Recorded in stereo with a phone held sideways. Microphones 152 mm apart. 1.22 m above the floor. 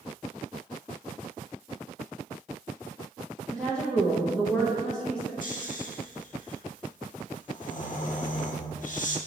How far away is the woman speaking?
About 0.8 m.